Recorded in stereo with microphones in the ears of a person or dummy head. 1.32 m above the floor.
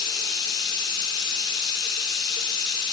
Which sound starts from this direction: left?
Running water, at 0.0 s.